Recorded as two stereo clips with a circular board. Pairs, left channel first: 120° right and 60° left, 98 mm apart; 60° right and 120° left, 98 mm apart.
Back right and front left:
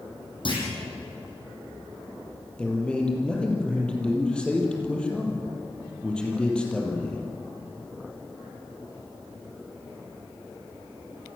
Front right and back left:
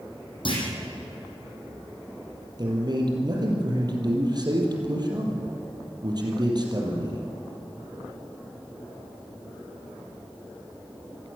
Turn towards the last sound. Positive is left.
turn(degrees=160)